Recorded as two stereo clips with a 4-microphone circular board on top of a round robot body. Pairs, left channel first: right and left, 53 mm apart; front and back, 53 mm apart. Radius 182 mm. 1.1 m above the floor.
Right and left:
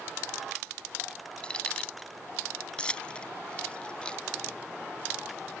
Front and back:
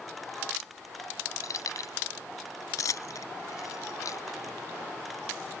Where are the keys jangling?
20° right.